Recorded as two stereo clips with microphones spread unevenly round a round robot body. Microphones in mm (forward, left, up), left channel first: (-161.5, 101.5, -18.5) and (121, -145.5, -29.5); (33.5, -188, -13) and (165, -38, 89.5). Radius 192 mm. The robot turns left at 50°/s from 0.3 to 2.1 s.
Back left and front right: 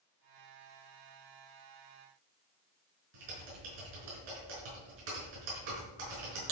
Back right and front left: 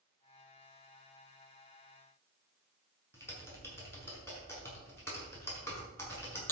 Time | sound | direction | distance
3.1 | typing on a keyboard | 55° right | 5.5 m